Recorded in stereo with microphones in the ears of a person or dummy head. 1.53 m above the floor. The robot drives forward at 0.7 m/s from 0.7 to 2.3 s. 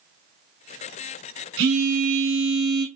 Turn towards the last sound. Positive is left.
turn(degrees=-55)  # may be behind; listen again after turning